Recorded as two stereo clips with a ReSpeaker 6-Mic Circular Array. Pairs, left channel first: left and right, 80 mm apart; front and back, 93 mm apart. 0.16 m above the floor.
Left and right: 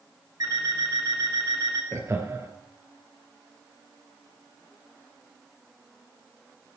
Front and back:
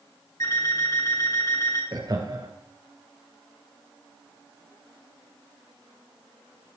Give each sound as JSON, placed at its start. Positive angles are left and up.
{"t": 0.4, "sound": "an alarm clock", "azimuth_deg": -50, "distance_m": 7.0}
{"t": 1.9, "sound": "laughter", "azimuth_deg": -140, "distance_m": 3.0}